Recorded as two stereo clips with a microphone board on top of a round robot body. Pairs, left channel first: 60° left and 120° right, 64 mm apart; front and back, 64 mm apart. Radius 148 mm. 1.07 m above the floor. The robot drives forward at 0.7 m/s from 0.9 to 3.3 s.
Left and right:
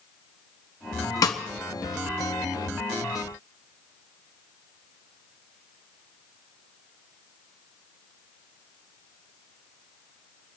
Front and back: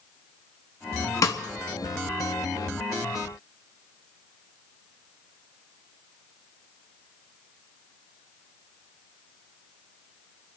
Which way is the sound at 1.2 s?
35° left.